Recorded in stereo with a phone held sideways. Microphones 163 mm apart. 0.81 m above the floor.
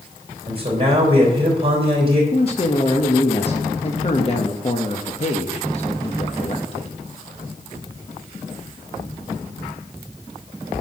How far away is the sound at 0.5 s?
About 3.5 m.